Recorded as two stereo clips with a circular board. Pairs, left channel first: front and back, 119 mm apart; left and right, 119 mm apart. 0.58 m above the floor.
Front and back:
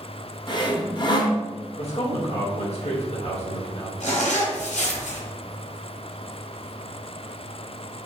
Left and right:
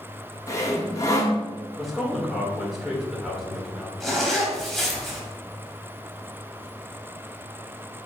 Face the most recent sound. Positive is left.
turn(degrees=0)